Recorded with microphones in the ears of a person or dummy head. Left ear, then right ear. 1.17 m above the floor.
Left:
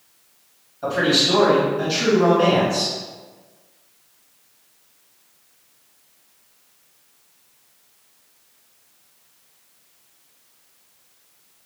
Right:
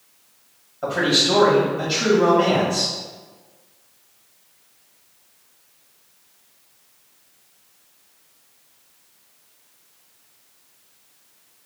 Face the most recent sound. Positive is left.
turn(degrees=-25)  # may be behind; listen again after turning